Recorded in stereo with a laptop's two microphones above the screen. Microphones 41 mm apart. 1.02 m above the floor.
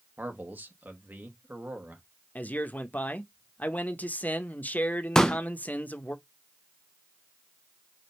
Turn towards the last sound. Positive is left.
turn(degrees=15)  # may be behind; listen again after turning